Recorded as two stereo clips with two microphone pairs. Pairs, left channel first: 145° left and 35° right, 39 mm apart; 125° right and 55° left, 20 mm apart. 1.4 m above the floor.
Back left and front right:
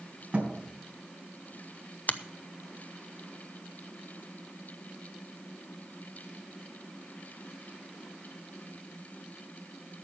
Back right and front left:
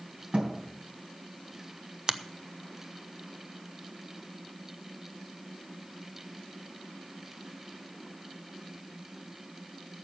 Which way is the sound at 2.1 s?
105° left.